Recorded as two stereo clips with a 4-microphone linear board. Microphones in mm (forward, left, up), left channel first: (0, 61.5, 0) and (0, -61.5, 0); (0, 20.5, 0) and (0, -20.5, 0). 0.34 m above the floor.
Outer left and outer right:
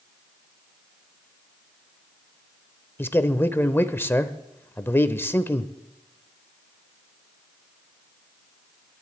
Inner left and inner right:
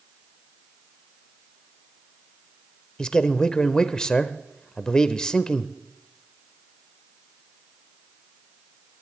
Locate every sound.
3.0 s a man speaking: 15° left (ahead or behind), 0.8 m